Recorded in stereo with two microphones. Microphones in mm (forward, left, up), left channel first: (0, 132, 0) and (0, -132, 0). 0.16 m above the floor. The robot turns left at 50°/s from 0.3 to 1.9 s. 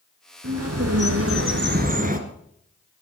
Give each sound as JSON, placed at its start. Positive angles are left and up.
{"t": 0.4, "sound": "a bird", "azimuth_deg": -70, "distance_m": 1.6}